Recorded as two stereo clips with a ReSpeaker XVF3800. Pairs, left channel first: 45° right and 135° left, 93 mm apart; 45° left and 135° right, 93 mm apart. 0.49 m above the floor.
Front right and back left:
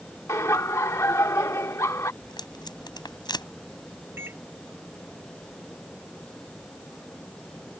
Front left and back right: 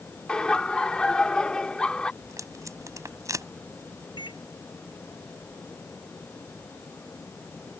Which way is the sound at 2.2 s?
85° right.